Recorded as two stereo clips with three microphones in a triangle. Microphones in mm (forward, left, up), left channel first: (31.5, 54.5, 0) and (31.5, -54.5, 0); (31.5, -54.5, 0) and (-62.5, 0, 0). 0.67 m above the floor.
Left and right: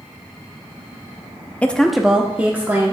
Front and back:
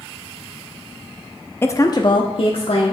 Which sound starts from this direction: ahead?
A woman speaking, at 1.6 s.